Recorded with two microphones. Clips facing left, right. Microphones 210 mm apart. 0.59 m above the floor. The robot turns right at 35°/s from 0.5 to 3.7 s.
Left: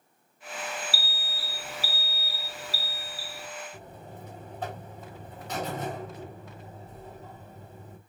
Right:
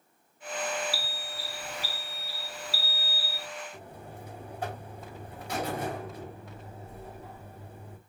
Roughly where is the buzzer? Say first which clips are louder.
Even; centre.